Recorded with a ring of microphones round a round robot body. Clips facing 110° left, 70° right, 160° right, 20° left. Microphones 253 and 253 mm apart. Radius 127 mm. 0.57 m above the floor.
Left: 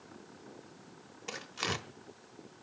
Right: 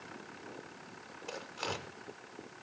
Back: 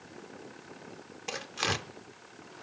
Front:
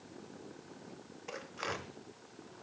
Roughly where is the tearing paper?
Behind.